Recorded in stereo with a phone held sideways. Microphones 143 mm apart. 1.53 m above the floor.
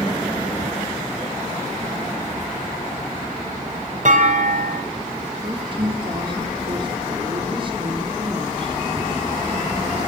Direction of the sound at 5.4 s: 35° right (ahead or behind).